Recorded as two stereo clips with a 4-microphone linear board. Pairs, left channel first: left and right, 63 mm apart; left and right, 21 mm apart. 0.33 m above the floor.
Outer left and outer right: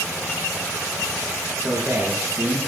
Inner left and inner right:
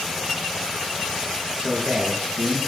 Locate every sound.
1.6 s a man speaking: 45° right (ahead or behind), 5 m